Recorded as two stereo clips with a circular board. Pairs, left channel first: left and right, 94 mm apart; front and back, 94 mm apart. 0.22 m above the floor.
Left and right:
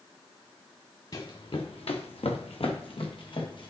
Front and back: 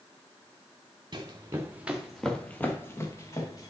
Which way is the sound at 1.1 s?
135° left.